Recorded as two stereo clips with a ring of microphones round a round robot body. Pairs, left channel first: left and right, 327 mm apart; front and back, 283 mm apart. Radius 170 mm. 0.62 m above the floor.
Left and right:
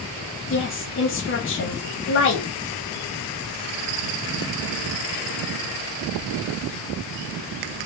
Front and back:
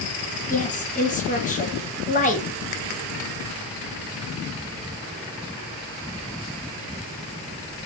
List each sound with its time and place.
0.5 s a woman speaking: 55° left, 1.2 m